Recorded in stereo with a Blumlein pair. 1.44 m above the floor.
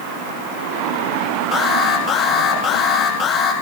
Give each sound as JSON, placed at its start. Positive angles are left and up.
{"t": 1.5, "sound": "an alarm", "azimuth_deg": 30, "distance_m": 9.5}